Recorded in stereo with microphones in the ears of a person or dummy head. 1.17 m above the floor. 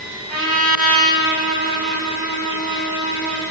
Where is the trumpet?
45° right (ahead or behind), 7 m.